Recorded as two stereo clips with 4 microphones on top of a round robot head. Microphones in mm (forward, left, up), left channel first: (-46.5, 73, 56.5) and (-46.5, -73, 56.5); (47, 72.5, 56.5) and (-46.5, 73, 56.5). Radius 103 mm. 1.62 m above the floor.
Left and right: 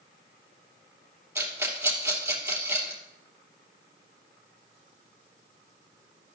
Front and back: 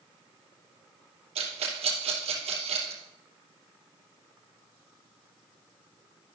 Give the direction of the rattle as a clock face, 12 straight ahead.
5 o'clock.